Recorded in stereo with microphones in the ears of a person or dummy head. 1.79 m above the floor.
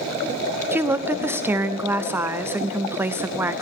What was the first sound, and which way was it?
A woman speaking, 15° right (ahead or behind).